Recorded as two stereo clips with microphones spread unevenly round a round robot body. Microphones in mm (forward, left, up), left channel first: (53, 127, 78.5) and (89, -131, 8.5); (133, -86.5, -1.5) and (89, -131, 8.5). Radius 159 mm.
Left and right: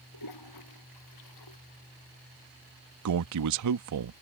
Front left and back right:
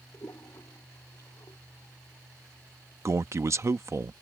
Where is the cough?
No cough in this recording.